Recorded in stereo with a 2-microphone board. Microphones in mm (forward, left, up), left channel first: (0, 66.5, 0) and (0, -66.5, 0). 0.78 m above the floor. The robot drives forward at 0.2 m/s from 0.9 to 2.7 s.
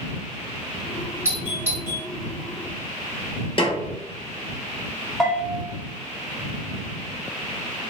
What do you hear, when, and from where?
1.2 s a doorbell: 20° right (ahead or behind), 1.7 m; by 2.0 s 15° right (ahead or behind), 1.8 m
3.6 s a snare drum: 40° left (ahead or behind), 0.8 m
5.2 s a bell: centre (ahead or behind), 0.9 m